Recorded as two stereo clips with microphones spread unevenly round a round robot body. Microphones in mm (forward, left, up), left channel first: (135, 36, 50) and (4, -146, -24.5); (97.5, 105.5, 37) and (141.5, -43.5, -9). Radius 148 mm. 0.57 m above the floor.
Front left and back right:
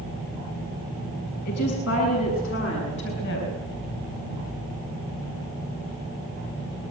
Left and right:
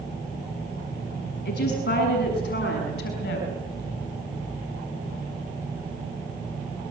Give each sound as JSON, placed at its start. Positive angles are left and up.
{"t": 1.4, "sound": "a woman speaking", "azimuth_deg": 100, "distance_m": 6.0}